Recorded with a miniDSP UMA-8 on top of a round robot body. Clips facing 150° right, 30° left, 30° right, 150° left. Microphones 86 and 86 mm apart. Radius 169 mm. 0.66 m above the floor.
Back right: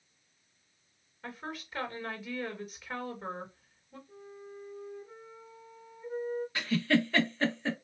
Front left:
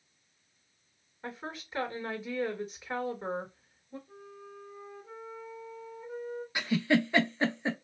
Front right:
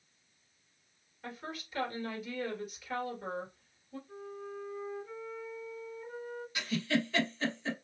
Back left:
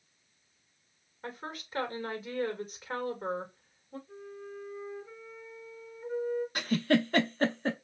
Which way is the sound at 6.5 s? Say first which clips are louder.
Front left 2 dB, back left 4 dB; 105° left.